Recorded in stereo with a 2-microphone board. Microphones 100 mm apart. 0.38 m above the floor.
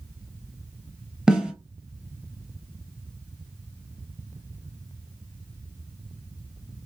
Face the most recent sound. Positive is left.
turn(degrees=-5)  # may be behind; listen again after turning